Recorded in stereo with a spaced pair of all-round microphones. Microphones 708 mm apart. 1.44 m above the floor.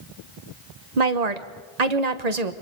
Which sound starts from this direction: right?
A woman speaking, at 1.0 s.